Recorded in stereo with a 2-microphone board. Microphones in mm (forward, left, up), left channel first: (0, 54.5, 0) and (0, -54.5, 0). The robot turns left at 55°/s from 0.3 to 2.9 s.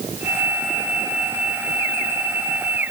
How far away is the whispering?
I don't hear whispering.